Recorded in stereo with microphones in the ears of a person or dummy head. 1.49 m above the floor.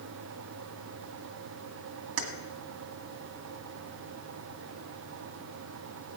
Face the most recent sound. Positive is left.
turn(degrees=-70)  # may be behind; listen again after turning